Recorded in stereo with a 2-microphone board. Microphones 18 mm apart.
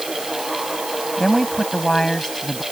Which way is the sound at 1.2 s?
25° left (ahead or behind).